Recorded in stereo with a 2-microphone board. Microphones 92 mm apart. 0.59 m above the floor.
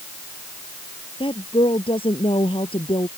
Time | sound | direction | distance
1.2 | a woman speaking | 80° left | ?